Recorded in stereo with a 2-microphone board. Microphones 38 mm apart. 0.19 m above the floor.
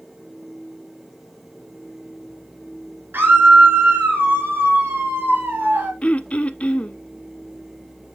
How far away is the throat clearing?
About 0.6 m.